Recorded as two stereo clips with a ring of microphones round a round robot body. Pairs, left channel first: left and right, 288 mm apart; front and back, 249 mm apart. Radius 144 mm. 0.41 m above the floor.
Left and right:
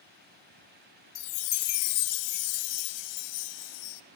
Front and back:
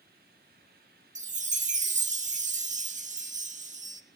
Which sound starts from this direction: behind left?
A chime, at 1.1 s.